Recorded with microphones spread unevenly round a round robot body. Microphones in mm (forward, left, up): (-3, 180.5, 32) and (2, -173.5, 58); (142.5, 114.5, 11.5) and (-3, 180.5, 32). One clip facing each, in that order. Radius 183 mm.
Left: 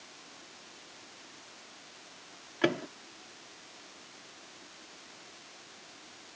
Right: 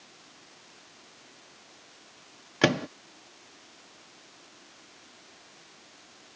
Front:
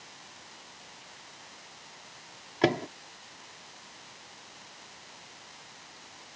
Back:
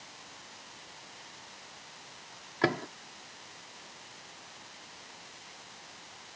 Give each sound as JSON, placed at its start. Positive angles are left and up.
{"t": 2.6, "sound": "a microwave", "azimuth_deg": -95}